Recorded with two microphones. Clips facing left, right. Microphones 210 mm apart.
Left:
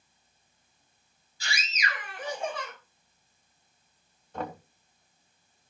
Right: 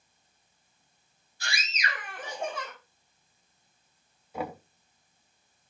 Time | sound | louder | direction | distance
1.4 | a scream | even | 55° right (ahead or behind) | 5.5 m
4.3 | knocking | right 1 dB | 10° right (ahead or behind) | 0.5 m